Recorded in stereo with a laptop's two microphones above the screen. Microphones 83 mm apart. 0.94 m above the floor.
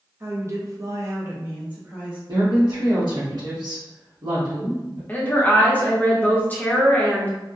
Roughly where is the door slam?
I don't hear a door slam.